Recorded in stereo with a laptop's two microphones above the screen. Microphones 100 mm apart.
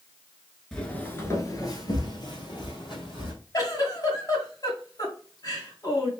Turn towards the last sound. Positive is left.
turn(degrees=40)  # may be behind; listen again after turning